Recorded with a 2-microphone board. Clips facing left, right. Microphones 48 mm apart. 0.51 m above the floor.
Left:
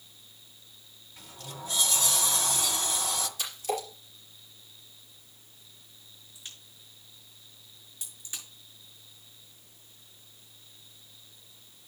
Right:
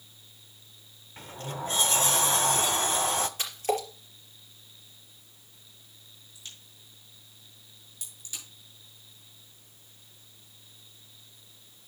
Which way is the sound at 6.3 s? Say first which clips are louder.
Even; 25° left (ahead or behind).